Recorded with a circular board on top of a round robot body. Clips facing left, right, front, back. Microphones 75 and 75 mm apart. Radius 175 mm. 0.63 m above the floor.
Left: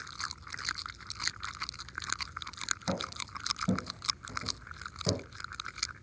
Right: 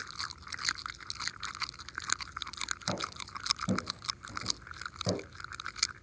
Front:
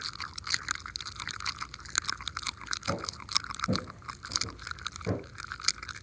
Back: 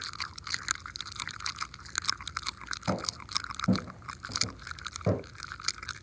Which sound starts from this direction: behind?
Footsteps, at 2.9 s.